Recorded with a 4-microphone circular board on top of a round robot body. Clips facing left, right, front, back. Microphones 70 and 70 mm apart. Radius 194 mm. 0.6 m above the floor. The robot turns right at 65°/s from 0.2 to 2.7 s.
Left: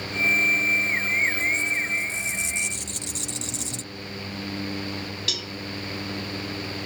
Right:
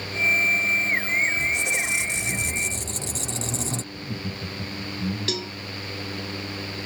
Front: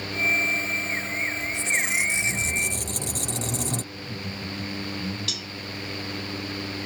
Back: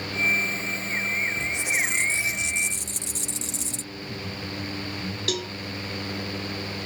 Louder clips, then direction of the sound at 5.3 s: Right 4 dB, back 7 dB; 145° right.